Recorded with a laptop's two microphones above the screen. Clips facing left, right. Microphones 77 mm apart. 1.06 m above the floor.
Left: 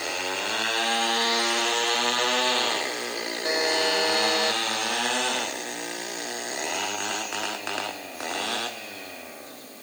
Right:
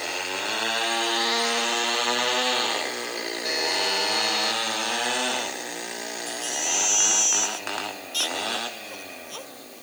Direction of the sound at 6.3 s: 70° right (ahead or behind).